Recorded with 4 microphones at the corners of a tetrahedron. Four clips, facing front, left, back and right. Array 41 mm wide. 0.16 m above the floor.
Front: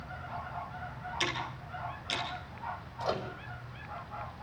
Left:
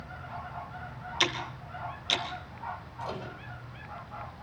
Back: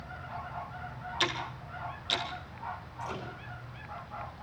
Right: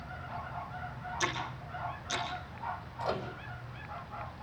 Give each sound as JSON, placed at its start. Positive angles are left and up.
{"t": 1.2, "sound": "ticking", "azimuth_deg": 95, "distance_m": 3.5}
{"t": 3.0, "sound": "a microwave", "azimuth_deg": -20, "distance_m": 5.0}